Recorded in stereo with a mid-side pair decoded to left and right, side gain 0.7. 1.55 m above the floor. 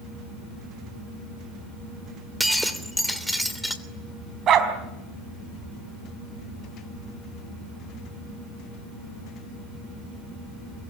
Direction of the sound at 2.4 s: Straight ahead.